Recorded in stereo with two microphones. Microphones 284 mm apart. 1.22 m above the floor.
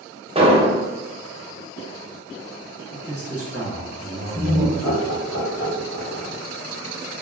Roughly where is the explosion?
Right.